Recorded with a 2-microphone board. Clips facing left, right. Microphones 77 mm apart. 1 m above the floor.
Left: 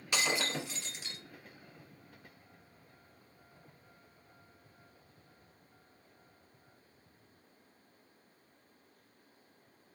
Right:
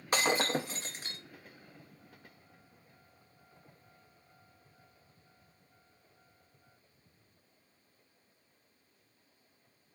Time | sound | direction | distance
0.1 | breaking glass | 40° right (ahead or behind) | 0.6 m